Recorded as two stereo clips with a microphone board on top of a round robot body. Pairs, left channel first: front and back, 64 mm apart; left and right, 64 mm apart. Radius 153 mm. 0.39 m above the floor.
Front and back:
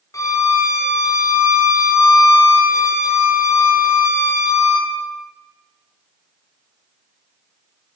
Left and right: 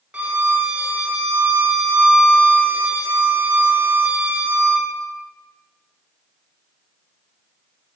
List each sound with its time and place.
0.1 s a violin: 20° right, 1.6 m